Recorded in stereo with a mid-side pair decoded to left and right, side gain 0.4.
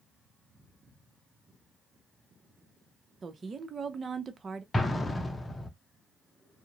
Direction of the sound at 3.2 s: 45° right.